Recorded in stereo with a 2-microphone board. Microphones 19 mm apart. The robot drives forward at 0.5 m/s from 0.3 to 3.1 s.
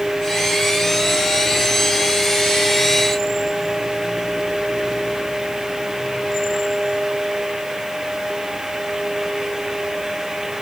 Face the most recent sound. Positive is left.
No sound to turn to.